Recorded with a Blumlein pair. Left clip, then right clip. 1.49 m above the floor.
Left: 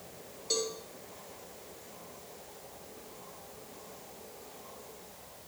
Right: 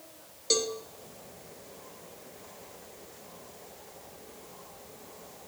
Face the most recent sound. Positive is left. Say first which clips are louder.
# right 5 dB
turn(degrees=-65)